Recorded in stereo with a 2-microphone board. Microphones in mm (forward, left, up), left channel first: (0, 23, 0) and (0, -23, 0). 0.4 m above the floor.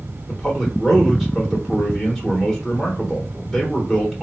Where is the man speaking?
Centre (ahead or behind), 1.1 m.